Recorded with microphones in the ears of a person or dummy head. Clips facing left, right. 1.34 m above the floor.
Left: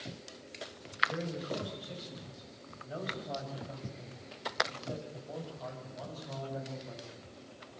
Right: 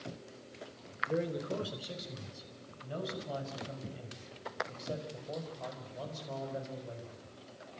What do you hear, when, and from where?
1.1 s a man speaking: 60° right (ahead or behind), 5 m; by 7.2 s 40° right (ahead or behind), 7.5 m